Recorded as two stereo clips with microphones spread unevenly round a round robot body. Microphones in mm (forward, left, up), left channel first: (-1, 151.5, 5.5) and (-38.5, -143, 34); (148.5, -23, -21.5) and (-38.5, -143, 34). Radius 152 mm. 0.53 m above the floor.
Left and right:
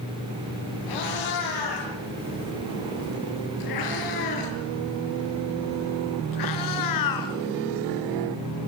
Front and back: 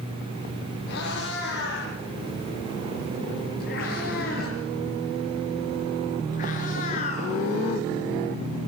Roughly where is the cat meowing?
Left.